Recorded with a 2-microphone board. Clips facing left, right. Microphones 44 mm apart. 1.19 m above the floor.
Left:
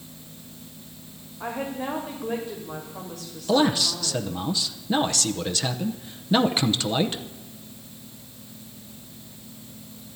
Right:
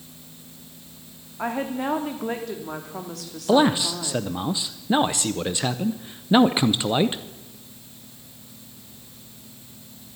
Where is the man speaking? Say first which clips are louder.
Right 3 dB; 20° right (ahead or behind), 0.7 m.